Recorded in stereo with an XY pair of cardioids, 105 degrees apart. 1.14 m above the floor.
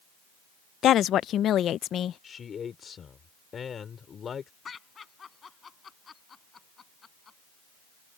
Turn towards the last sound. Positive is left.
turn(degrees=40)